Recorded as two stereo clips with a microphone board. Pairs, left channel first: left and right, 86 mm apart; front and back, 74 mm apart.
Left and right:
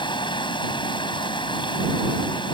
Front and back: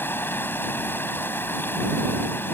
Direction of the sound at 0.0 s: 65° left.